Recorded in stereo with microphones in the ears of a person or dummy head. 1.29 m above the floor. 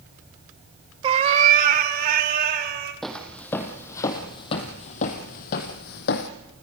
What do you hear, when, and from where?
1.0 s a cat meowing: 30° right (ahead or behind), 0.9 m; by 2.9 s 60° right (ahead or behind), 3.5 m
3.0 s footsteps: 5° left (ahead or behind), 1.8 m; by 6.3 s 50° left (ahead or behind), 2.0 m